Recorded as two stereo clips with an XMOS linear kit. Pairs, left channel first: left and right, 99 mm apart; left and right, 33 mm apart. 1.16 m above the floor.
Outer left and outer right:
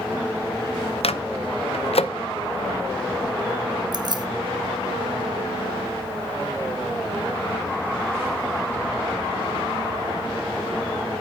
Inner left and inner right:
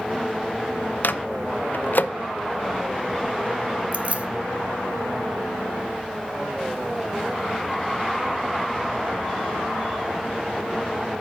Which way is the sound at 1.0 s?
75° left (ahead or behind).